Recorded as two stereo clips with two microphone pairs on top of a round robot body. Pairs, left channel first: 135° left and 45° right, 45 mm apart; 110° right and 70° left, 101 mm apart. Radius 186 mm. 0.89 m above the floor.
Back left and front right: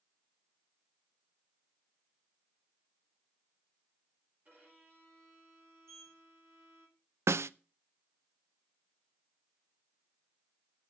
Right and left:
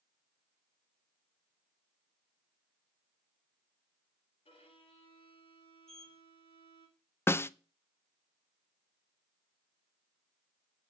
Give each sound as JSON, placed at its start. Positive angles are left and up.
{"t": 4.5, "sound": "a violin", "azimuth_deg": -95, "distance_m": 4.0}
{"t": 5.9, "sound": "a sliding door", "azimuth_deg": -25, "distance_m": 3.0}
{"t": 7.3, "sound": "a snare drum", "azimuth_deg": -45, "distance_m": 0.5}